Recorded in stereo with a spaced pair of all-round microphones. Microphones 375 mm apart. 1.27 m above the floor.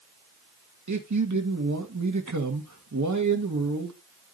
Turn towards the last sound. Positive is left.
turn(degrees=-45)  # may be behind; listen again after turning